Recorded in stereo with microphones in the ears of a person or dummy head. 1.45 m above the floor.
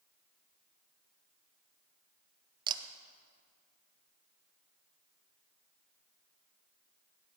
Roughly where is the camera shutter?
Right.